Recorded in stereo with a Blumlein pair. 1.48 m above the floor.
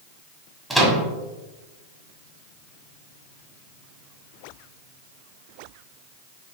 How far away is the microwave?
About 0.8 m.